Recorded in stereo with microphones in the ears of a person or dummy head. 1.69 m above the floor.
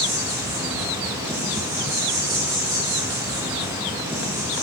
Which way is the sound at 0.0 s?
10° right (ahead or behind).